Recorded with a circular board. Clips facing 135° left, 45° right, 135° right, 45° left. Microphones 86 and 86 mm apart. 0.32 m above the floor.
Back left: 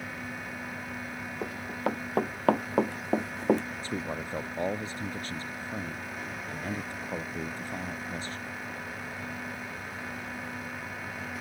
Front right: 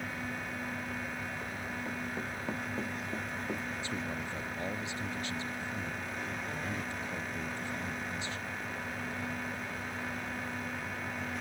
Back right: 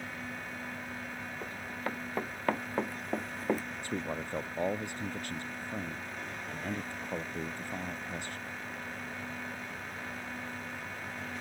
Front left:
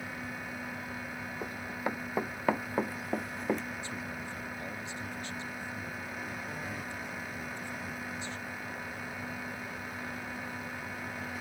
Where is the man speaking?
175° right.